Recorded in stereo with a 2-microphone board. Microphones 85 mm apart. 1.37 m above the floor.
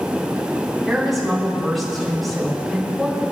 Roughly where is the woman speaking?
Centre.